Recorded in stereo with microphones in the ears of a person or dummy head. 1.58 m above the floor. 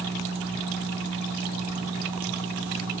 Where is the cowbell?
No cowbell in this recording.